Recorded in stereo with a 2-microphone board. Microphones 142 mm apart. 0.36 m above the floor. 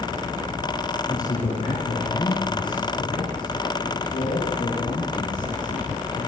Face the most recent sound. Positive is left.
turn(degrees=70)  # may be behind; listen again after turning